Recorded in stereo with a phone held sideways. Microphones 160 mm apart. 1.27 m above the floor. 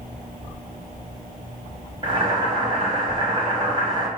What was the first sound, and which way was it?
Boiling, 30° right (ahead or behind).